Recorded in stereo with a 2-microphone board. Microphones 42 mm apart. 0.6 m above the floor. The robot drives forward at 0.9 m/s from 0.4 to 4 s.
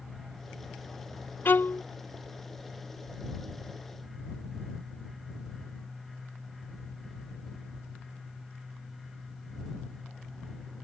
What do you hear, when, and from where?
1.4 s a violin: 55° left (ahead or behind); by 1.8 s 60° left (ahead or behind)